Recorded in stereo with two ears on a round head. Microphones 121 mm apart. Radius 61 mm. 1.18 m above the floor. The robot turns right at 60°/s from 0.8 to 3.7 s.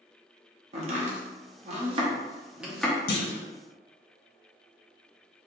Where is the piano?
No piano in this recording.